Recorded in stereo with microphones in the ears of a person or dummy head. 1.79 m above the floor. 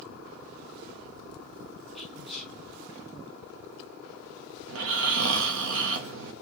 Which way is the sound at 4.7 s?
65° right (ahead or behind).